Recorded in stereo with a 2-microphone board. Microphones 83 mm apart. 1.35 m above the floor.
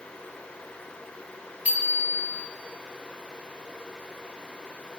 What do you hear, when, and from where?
1.6 s a bicycle bell: 15° right (ahead or behind), 4 m